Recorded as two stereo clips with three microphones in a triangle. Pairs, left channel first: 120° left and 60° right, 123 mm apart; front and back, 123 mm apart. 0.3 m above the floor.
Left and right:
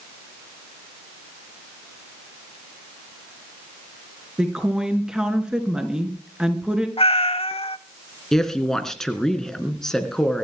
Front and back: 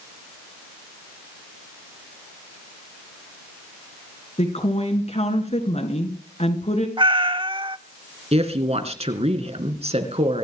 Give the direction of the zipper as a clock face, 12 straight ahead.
No zipper in this recording.